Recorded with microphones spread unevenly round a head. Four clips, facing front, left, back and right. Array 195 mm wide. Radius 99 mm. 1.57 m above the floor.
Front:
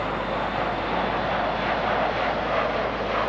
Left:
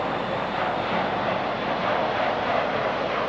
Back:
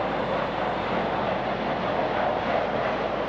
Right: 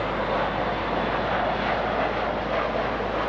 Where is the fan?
35° right.